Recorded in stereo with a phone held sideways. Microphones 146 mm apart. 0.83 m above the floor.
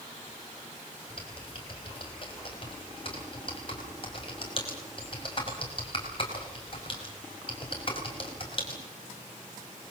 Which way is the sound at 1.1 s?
40° left (ahead or behind).